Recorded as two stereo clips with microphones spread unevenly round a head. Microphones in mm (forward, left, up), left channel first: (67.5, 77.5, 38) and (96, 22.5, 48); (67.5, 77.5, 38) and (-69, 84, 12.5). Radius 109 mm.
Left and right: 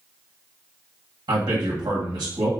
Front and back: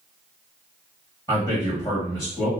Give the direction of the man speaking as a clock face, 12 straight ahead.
3 o'clock.